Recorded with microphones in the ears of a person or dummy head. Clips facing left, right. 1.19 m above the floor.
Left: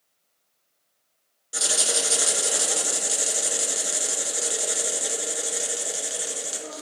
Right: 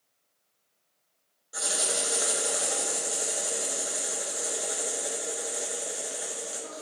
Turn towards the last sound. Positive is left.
turn(degrees=35)  # may be behind; listen again after turning